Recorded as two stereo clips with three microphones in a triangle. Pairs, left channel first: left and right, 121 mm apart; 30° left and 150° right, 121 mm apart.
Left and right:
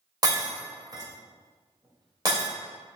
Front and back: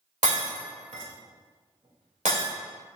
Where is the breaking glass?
145° right, 2.5 m.